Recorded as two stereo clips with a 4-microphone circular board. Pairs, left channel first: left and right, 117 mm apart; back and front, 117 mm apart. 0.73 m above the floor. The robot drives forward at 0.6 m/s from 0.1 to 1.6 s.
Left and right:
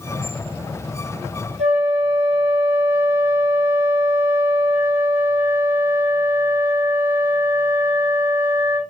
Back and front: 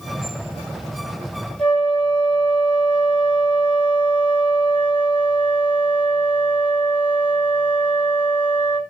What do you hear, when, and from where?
1.6 s a flute: 95° right, 4 m